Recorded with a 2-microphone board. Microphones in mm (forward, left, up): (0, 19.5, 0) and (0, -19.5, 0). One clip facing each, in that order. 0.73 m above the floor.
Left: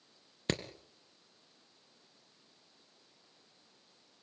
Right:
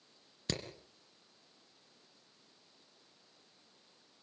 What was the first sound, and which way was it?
Hammering, 35° left (ahead or behind).